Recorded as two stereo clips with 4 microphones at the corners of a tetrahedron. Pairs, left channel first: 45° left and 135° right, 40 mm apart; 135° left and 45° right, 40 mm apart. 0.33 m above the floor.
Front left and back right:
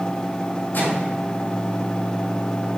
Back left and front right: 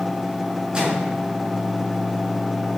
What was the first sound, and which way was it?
A microwave, 15° left.